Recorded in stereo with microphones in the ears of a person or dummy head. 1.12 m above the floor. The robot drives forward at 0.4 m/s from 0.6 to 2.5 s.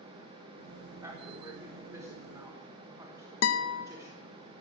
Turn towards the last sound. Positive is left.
turn(degrees=75)  # may be behind; listen again after turning